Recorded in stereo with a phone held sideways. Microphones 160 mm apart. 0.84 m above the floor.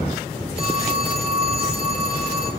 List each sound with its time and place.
0.6 s a phone ringing: 35° right (ahead or behind), 4.5 m